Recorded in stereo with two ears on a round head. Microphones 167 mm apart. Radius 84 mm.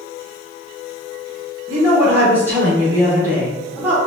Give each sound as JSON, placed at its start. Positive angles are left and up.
{"t": 1.7, "sound": "a woman speaking", "side_deg": -10, "distance_m": 0.9}